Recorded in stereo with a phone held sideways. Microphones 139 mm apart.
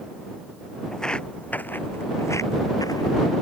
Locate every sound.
0.9 s footsteps: 5° left (ahead or behind); by 3.1 s 25° left (ahead or behind)